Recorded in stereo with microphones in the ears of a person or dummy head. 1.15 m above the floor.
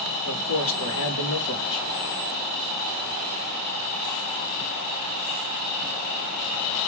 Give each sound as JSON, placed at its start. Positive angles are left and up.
{"t": 0.3, "sound": "a man speaking", "side_deg": 65, "distance_m": 1.0}